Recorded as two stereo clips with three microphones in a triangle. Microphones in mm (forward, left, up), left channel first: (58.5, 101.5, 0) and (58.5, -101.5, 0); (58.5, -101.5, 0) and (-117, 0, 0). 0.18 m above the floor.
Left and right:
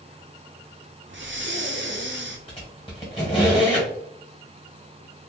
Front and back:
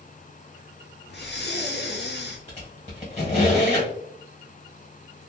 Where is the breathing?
65° right, 0.5 m.